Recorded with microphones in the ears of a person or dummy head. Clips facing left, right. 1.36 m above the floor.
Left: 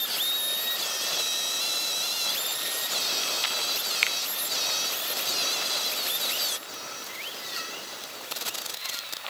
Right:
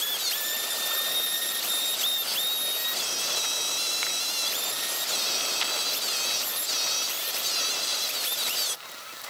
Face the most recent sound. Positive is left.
turn(degrees=40)  # may be behind; listen again after turning